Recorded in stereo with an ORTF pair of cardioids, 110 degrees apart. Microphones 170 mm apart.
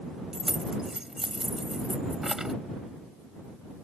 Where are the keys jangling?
5° right.